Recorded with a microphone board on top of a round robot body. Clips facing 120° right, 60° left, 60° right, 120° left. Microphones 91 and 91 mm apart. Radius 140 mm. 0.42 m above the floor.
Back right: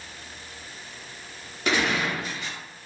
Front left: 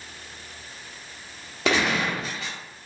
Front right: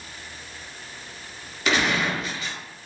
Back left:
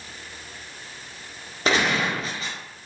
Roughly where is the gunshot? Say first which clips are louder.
Front left 2 dB, back left 1 dB; ahead left.